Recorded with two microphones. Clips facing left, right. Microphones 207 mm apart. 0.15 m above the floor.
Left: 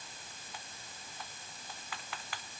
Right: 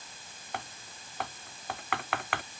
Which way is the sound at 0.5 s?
70° right (ahead or behind).